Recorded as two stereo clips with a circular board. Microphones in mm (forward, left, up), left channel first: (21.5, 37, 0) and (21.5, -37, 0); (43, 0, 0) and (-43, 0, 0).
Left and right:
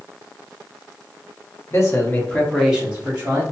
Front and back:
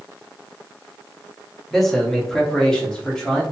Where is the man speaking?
85° left, 1.0 m; by 3.4 s 75° right, 1.0 m.